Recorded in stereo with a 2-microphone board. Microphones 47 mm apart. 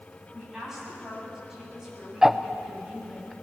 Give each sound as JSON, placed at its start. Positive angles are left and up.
{"t": 0.3, "sound": "a woman speaking", "side_deg": -10, "distance_m": 9.0}
{"t": 2.2, "sound": "ticking", "side_deg": -10, "distance_m": 0.7}